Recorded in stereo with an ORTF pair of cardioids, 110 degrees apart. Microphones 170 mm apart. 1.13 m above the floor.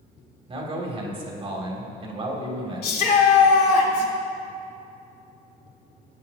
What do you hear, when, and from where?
0.5 s a man speaking: 35° right, 2.5 m
2.8 s a shout: 65° left, 2.5 m